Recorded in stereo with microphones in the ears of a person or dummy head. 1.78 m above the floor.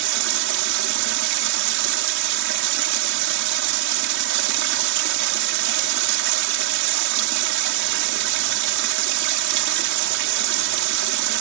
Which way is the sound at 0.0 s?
65° right (ahead or behind).